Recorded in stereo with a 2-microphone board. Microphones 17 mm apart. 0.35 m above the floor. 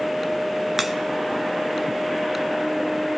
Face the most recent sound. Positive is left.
turn(degrees=-20)  # may be behind; listen again after turning